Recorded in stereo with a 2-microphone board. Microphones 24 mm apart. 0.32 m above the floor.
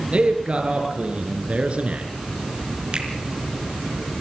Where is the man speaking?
50° right (ahead or behind), 5.5 m; by 2.1 s 55° right (ahead or behind), 4.5 m.